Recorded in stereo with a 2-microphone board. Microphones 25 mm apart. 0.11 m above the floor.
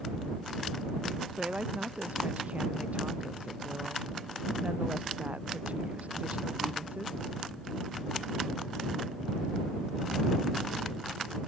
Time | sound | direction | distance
1.3 | a woman speaking | 75° right (ahead or behind) | ?